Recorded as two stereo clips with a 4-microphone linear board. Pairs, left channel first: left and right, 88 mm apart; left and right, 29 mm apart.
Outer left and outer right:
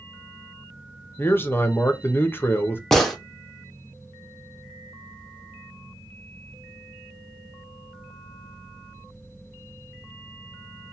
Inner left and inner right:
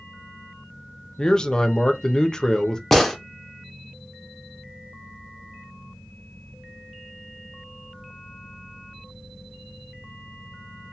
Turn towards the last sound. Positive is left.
turn(degrees=5)  # may be behind; listen again after turning